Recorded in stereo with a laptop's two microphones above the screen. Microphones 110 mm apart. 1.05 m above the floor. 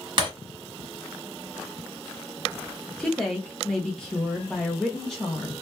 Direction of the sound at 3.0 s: 5° left (ahead or behind).